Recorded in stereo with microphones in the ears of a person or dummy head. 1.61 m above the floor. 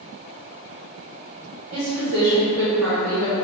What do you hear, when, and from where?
1.7 s a woman speaking: 75° right (ahead or behind), 1.6 m; by 3.3 s 50° right (ahead or behind), 0.8 m